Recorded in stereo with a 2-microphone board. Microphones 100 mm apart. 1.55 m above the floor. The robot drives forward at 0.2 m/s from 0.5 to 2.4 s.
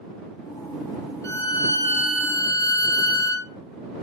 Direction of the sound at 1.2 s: 30° left (ahead or behind).